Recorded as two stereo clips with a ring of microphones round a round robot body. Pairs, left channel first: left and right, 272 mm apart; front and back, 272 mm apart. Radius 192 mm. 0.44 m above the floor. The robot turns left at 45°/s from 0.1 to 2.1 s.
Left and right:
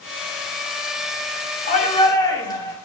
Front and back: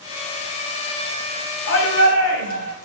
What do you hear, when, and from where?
1.7 s a shout: 35° left, 3.5 m; by 2.8 s 15° left, 3.5 m